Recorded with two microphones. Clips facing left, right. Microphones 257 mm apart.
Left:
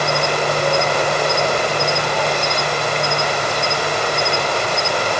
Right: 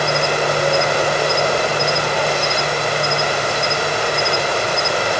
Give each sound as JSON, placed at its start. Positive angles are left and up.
{"t": 0.0, "sound": "an insect", "side_deg": -10}